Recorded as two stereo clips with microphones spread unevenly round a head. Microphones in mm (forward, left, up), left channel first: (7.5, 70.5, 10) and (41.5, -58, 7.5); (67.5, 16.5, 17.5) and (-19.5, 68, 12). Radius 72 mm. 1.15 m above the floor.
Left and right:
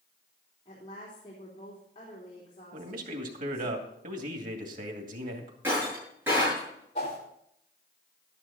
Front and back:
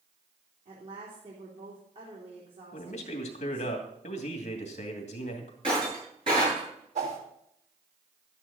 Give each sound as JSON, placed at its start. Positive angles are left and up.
{"t": 0.7, "sound": "a woman speaking", "azimuth_deg": 165, "distance_m": 3.0}
{"t": 2.7, "sound": "a man speaking", "azimuth_deg": -55, "distance_m": 2.5}
{"t": 5.6, "sound": "breaking glass", "azimuth_deg": -150, "distance_m": 7.5}
{"t": 7.0, "sound": "a whoosh", "azimuth_deg": 155, "distance_m": 4.0}